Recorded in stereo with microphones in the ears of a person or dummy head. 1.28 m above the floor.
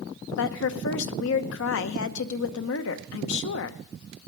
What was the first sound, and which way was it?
A woman speaking, 70° left (ahead or behind).